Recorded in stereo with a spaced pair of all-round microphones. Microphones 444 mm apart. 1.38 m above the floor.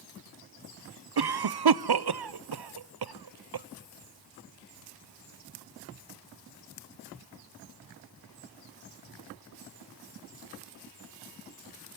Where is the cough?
60° right (ahead or behind), 0.6 m.